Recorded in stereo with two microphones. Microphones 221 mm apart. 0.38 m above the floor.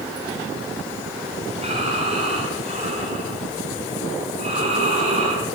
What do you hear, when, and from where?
1.6 s breathing: 30° right (ahead or behind), 4.5 m